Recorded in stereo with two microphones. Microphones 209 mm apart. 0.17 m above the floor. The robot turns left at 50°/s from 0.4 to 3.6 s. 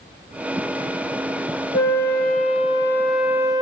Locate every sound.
1.7 s a flute: 70° left, 0.7 m; by 3.6 s 20° right, 0.7 m